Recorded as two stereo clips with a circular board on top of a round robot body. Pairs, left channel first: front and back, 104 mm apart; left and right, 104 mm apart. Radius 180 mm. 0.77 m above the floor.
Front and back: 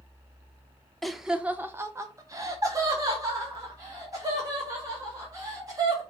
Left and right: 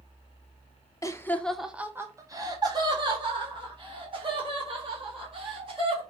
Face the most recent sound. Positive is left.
turn(degrees=-125)